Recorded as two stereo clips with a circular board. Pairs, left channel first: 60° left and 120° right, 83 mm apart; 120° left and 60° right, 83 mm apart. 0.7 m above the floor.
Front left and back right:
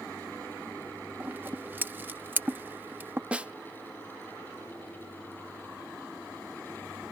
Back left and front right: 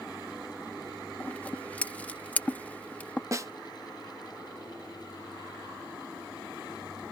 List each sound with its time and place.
1.2 s scissors: 175° right
3.3 s a snare drum: 55° right